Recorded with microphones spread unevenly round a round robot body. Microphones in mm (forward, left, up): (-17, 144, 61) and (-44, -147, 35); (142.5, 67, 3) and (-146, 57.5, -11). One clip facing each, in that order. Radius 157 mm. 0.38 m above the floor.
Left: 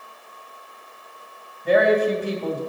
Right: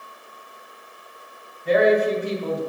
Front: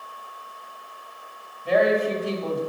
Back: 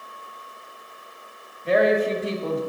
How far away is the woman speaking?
About 2 m.